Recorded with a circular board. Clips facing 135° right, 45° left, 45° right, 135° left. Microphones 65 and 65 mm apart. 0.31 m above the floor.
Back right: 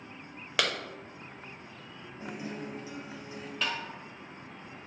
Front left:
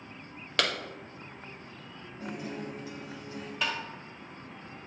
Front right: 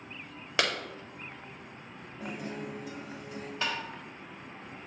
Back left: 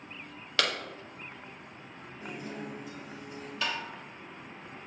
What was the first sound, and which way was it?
A clap, 65° right.